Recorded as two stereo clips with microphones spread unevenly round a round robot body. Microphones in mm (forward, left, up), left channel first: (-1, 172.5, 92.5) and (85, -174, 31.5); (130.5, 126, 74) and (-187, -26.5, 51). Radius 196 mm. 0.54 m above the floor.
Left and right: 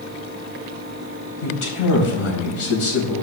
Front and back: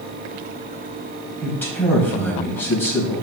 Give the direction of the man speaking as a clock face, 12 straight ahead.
8 o'clock.